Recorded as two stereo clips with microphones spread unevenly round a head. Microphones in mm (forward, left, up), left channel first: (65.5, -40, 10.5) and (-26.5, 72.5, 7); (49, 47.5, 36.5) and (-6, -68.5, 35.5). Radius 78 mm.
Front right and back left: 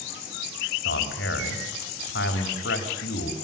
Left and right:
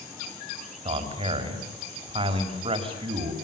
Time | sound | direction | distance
0.8 | a man speaking | 65° right | 4.5 m